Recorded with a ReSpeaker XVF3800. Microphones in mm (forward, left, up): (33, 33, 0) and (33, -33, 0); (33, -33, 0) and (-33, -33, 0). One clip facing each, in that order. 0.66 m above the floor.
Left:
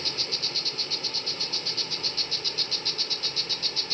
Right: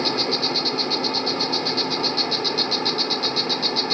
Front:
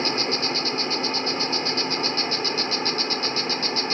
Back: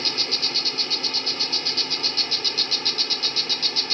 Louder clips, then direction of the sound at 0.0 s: Right 13 dB, front 6 dB; 60° right.